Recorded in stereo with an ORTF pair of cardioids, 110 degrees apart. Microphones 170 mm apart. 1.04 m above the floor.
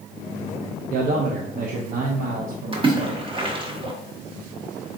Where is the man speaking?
55° right, 0.6 m.